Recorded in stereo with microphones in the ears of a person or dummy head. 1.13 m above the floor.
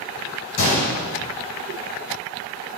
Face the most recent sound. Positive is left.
turn(degrees=45)  # may be behind; listen again after turning